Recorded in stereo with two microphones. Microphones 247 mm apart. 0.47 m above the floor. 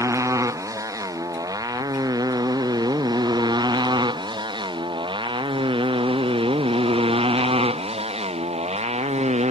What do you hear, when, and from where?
0.0 s a motorcycle: 10° right (ahead or behind); by 9.5 s 25° right (ahead or behind)